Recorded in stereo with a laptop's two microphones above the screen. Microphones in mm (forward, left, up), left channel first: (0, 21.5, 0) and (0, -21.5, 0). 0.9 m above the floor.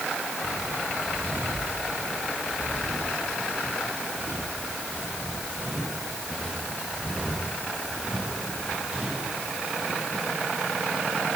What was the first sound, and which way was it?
Footsteps, 65° right (ahead or behind).